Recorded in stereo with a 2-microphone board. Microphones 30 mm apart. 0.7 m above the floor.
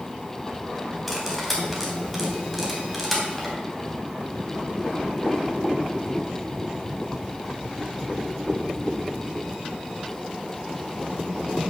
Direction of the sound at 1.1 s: Centre (ahead or behind).